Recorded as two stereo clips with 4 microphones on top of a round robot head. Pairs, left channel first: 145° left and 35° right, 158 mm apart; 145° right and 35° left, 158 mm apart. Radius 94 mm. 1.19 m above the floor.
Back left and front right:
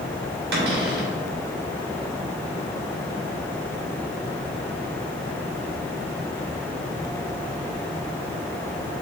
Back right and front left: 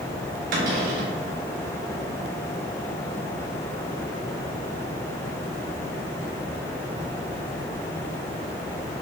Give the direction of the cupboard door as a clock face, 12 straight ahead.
12 o'clock.